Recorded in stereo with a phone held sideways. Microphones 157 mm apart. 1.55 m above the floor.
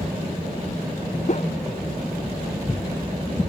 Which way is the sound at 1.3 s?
50° left (ahead or behind).